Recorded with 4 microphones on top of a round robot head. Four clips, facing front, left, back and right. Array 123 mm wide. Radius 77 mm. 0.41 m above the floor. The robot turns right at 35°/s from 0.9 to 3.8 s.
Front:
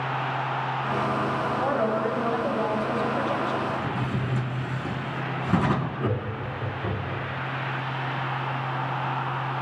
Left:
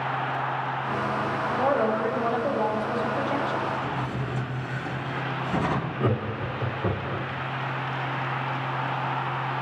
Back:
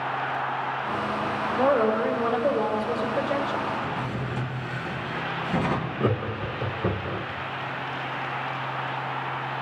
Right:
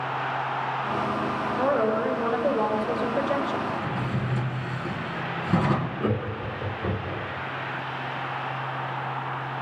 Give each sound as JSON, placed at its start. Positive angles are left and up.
{"t": 1.6, "sound": "a woman speaking", "azimuth_deg": -155, "distance_m": 3.5}
{"t": 3.7, "sound": "a drawer", "azimuth_deg": -35, "distance_m": 2.0}
{"t": 6.0, "sound": "laughter", "azimuth_deg": 135, "distance_m": 1.4}